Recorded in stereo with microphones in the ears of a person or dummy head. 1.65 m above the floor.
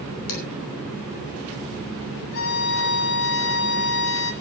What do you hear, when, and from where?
0.3 s dishes clattering: 70° left (ahead or behind), 6.5 m
2.3 s a violin: 70° left (ahead or behind), 2 m